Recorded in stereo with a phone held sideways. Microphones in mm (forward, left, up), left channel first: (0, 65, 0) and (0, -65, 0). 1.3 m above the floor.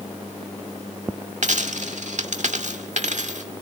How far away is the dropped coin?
About 1.6 m.